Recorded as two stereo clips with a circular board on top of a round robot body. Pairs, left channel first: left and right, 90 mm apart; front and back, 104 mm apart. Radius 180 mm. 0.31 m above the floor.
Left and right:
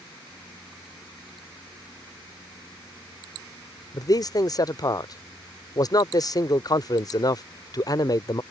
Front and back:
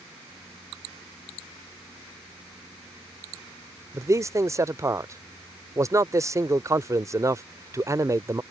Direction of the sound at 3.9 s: 125° left.